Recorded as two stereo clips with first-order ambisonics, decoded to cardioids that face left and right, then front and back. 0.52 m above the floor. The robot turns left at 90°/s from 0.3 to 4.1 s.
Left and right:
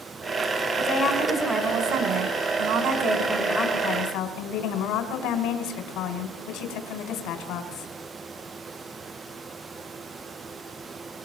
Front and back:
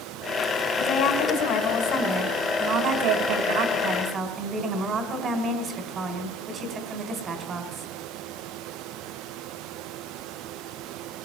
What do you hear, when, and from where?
0.8 s a woman speaking: 55° left, 2.5 m; by 7.9 s 115° left, 2.5 m